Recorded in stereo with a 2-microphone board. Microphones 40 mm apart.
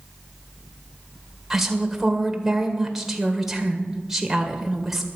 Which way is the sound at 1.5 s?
5° right (ahead or behind).